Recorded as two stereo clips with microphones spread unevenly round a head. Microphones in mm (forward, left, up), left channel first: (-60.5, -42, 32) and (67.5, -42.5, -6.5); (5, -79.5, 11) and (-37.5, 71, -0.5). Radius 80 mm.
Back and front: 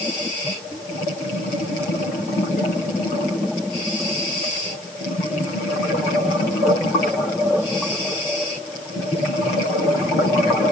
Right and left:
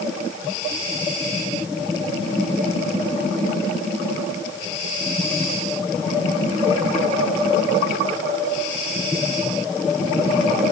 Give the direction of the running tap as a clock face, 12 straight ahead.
I don't hear a running tap.